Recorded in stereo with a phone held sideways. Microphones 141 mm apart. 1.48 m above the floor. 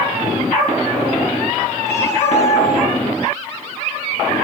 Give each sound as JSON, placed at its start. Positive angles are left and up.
{"t": 1.9, "sound": "a cat meowing", "side_deg": 15, "distance_m": 7.5}